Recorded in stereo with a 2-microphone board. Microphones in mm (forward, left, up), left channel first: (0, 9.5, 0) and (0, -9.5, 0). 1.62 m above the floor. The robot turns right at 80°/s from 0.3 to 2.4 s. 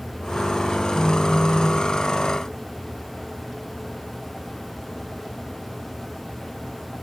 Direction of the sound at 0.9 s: 70° left.